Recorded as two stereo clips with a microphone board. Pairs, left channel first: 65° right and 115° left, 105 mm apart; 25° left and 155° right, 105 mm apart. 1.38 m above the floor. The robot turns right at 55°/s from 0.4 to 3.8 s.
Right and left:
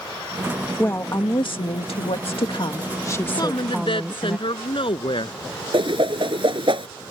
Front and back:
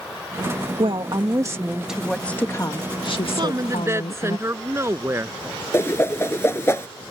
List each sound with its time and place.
0.8 s a woman speaking: 135° right; by 4.4 s 30° left
3.4 s a woman speaking: 120° right; by 5.4 s 95° right
5.7 s a whoosh: 85° left